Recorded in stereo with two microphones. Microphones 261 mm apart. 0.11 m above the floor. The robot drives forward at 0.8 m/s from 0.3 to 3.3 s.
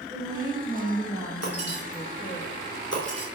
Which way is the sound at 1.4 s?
75° left (ahead or behind).